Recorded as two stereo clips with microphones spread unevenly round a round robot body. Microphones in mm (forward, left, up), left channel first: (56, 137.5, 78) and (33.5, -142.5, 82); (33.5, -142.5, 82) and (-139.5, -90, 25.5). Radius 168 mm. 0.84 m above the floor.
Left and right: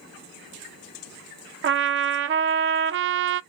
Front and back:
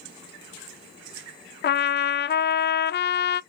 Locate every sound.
1.6 s a trumpet: 55° right, 0.5 m